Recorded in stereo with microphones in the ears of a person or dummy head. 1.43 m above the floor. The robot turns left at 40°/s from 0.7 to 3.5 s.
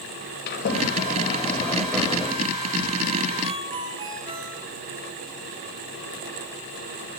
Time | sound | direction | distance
0.5 | a sliding door | 55° left | 5.5 m
3.4 | a ringtone | 30° right (ahead or behind) | 5.5 m